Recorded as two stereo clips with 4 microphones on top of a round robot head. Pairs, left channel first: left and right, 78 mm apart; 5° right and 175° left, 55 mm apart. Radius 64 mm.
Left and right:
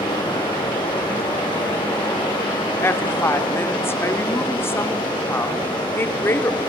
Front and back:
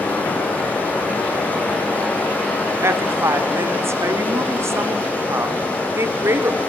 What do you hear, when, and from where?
0.0 s running water: 50° left, 7 m
2.8 s a woman speaking: 145° left, 1.4 m